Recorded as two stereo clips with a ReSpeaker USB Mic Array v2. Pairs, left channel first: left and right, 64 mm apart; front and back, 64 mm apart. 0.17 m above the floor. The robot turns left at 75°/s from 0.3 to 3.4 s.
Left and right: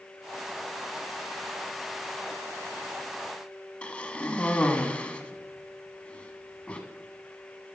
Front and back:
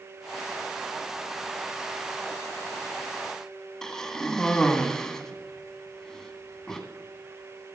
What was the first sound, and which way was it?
A cough, 65° left.